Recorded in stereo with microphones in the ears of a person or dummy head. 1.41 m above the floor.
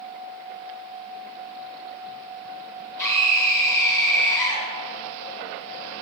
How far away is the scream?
About 2.0 m.